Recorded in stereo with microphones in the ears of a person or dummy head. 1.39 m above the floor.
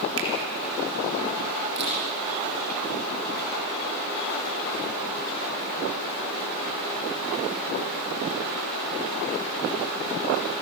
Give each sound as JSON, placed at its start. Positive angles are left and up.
{"t": 0.2, "sound": "a finger snap", "side_deg": -70, "distance_m": 3.5}
{"t": 1.8, "sound": "a camera shutter", "side_deg": -60, "distance_m": 7.5}